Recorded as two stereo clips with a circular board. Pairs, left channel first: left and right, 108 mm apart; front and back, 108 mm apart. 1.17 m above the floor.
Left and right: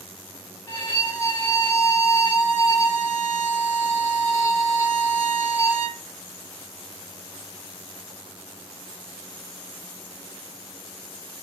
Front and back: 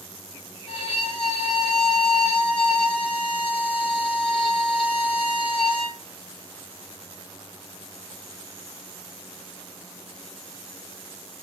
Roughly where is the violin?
Ahead left.